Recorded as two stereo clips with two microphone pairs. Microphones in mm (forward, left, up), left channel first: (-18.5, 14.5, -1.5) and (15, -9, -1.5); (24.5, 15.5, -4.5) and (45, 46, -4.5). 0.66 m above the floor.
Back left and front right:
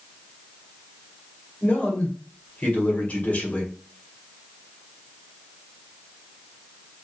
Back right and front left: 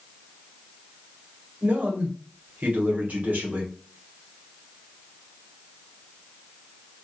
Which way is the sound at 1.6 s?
95° left.